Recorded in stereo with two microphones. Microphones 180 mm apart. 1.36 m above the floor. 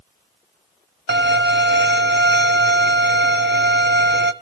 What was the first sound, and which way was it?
A violin, 80° right.